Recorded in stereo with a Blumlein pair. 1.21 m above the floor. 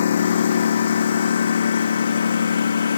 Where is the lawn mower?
65° left; by 3.0 s 70° left.